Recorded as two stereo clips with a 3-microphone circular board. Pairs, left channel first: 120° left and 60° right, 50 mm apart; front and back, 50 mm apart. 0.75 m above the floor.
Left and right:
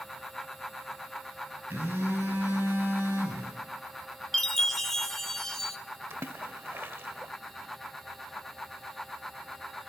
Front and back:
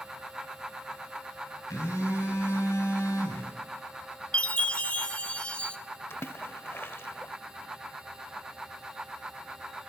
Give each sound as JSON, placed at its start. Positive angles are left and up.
{"t": 1.7, "sound": "a phone buzzing", "azimuth_deg": -15, "distance_m": 9.0}
{"t": 4.3, "sound": "a chime", "azimuth_deg": 40, "distance_m": 0.8}
{"t": 6.1, "sound": "a splash", "azimuth_deg": -30, "distance_m": 0.8}